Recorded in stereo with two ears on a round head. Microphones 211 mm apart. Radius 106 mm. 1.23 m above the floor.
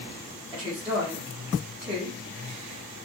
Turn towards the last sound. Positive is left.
turn(degrees=-10)  # may be behind; listen again after turning